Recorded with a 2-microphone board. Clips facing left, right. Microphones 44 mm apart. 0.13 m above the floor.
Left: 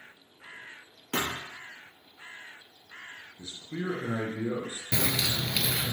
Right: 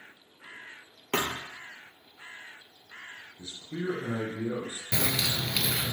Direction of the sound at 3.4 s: 30° left (ahead or behind).